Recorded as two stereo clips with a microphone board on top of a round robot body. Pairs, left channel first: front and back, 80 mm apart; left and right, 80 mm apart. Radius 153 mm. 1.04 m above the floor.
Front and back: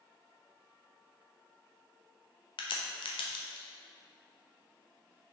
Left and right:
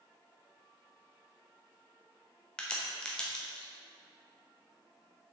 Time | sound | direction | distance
2.6 | a crack | 10° left | 0.9 m